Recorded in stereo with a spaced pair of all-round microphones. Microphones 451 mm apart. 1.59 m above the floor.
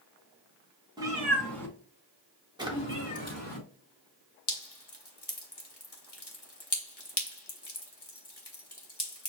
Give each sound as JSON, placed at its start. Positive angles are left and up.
{"t": 1.0, "sound": "a cat meowing", "side_deg": -10, "distance_m": 1.6}
{"t": 2.6, "sound": "a drawer", "side_deg": -10, "distance_m": 1.1}
{"t": 4.5, "sound": "dripping", "side_deg": 60, "distance_m": 1.1}